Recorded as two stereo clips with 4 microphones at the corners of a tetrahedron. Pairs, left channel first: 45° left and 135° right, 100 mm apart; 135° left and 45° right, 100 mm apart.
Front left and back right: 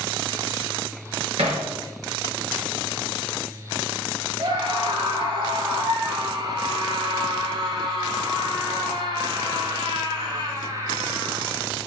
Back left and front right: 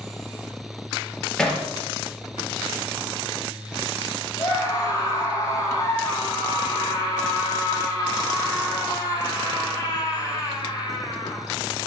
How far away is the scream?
About 6 m.